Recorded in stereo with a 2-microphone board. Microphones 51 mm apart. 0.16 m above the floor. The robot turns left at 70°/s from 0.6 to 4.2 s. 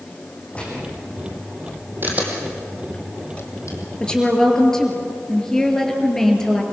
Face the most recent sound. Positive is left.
turn(degrees=10)  # may be behind; listen again after turning